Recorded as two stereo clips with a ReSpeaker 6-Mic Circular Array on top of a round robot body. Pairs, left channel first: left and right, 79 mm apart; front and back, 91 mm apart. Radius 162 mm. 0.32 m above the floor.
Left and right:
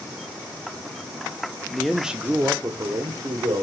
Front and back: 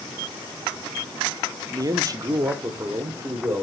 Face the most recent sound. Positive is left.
turn(degrees=-115)